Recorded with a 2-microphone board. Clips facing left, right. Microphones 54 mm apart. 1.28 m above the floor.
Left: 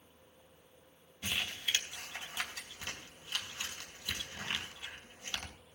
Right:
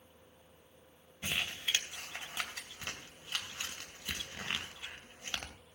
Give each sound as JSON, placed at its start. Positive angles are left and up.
{"t": 1.2, "sound": "crumpling", "side_deg": -25, "distance_m": 2.5}